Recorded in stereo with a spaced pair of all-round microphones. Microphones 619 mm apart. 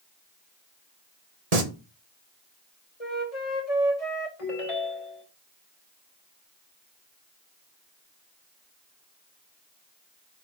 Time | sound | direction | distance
1.5 | singing | 75° right (ahead or behind) | 1.7 m
3.0 | a flute | 65° left (ahead or behind) | 4 m
4.4 | a ringtone | 55° left (ahead or behind) | 4 m